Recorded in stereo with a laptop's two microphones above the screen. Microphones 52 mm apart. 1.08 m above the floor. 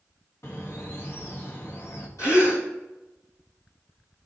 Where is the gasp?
80° left, 3 m.